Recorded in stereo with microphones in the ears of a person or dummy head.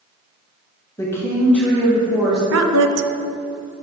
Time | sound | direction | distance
1.0 | a woman speaking | 15° left (ahead or behind) | 1.5 m
2.5 | a woman speaking | 75° right (ahead or behind) | 0.6 m